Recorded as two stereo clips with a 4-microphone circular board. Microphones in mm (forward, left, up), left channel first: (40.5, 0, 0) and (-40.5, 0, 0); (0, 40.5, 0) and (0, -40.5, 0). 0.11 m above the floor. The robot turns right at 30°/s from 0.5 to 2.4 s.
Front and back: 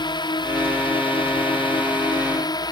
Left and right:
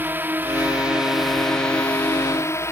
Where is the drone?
25° right; by 2.7 s 35° left.